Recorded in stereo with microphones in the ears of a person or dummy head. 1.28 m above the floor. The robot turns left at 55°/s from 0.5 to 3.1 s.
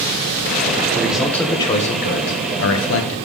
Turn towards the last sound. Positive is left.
turn(degrees=75)